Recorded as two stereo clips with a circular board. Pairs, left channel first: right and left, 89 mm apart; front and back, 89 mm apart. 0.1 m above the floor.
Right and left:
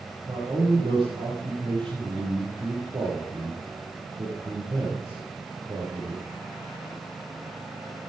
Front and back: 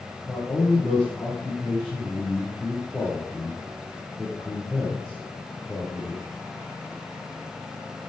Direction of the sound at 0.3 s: 95° left.